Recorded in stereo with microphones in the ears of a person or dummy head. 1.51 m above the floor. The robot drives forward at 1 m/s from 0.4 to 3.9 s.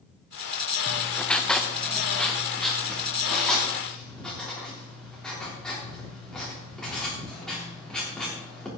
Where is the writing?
5° left (ahead or behind), 0.5 m; by 8.7 s centre (ahead or behind), 3.5 m.